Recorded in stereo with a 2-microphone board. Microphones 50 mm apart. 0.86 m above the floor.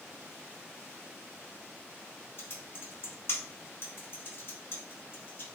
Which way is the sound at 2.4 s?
45° left (ahead or behind).